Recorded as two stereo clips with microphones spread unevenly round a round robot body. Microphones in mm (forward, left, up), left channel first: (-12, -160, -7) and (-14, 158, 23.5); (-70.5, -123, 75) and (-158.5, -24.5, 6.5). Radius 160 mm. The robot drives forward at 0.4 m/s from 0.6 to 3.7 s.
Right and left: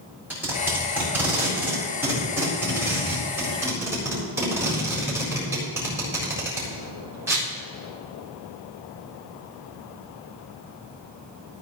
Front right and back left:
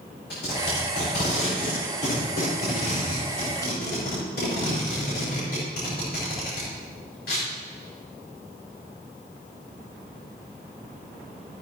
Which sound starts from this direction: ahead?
Tape being pulled, at 0.3 s.